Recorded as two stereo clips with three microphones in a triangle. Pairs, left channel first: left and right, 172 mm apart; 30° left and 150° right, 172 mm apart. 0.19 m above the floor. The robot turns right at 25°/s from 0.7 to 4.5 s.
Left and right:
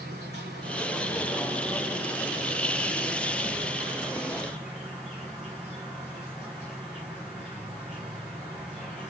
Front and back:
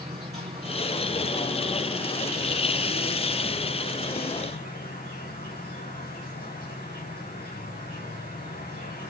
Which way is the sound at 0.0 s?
100° right.